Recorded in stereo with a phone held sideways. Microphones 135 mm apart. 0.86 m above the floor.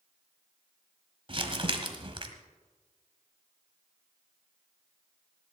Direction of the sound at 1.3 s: 45° right (ahead or behind).